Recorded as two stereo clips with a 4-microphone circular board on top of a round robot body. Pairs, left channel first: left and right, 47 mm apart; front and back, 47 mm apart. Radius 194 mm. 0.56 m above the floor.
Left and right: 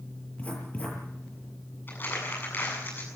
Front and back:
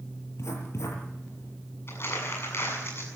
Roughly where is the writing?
Ahead left.